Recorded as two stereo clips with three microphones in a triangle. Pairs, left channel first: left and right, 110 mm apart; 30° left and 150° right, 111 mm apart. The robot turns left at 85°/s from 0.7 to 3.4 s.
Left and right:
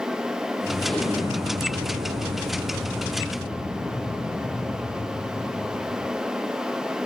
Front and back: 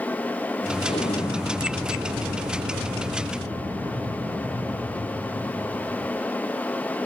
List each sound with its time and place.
0.8 s an explosion: 15° left, 3 m; by 6.1 s 155° left, 3 m